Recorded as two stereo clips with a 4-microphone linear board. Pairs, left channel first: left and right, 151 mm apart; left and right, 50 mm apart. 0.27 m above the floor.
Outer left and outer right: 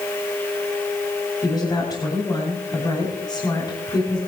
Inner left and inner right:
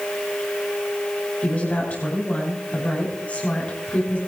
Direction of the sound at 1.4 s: 30° left (ahead or behind).